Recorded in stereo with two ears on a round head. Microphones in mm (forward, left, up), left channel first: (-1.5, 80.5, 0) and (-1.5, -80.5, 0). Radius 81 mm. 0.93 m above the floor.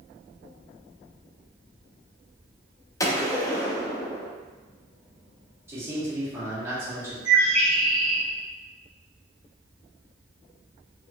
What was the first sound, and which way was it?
A gunshot, 20° left (ahead or behind).